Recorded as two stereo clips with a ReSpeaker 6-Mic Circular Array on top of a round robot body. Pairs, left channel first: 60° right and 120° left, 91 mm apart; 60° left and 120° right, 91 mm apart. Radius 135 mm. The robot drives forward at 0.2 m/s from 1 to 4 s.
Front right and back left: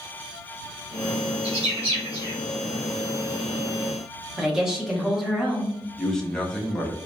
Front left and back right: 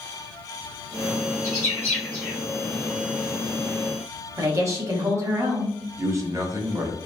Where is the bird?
120° left, 0.6 m; by 2.4 s 135° left, 0.7 m.